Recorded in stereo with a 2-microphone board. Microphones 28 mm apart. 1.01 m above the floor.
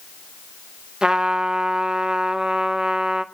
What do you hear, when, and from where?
1.0 s a trumpet: 25° right (ahead or behind), 0.5 m